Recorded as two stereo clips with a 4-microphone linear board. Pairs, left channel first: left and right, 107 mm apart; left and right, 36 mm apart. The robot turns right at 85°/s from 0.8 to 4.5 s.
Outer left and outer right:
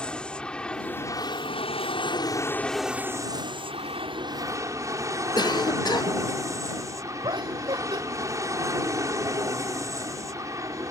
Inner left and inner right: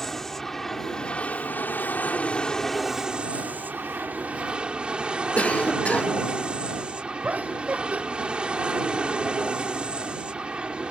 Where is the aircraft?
10° left; by 10.9 s 35° right.